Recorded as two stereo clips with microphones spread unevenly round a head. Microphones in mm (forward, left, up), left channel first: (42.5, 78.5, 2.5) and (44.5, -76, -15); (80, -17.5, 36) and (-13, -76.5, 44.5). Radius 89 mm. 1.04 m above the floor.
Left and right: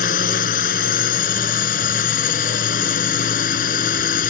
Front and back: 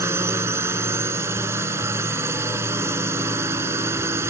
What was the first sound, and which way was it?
A drone, 140° left.